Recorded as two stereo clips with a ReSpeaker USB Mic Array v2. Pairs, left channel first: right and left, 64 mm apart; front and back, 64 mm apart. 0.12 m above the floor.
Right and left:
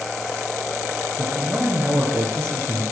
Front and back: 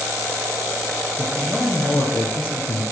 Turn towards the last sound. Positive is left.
turn(degrees=50)